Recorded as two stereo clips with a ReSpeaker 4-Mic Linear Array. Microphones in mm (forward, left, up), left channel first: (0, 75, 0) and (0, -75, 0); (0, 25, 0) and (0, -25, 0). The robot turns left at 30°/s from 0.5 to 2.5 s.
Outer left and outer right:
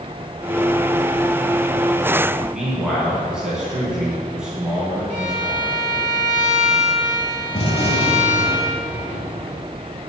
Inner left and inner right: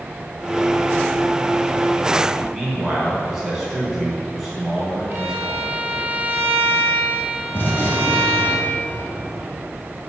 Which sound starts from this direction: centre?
A man speaking, at 2.5 s.